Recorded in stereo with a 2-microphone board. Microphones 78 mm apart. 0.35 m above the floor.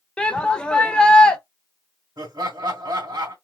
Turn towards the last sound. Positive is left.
turn(degrees=-55)  # may be behind; listen again after turning